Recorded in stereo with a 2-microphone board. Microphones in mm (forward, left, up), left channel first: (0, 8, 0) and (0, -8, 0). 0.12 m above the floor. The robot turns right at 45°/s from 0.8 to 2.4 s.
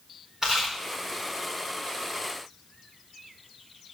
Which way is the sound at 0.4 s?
25° right (ahead or behind).